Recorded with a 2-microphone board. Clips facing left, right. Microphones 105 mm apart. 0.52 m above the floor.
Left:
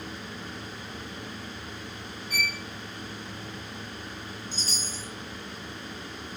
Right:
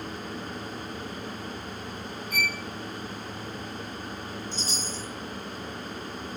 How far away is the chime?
About 1.1 m.